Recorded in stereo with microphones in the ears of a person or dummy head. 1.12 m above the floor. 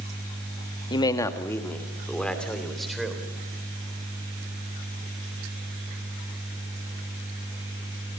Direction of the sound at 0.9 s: 30° left (ahead or behind).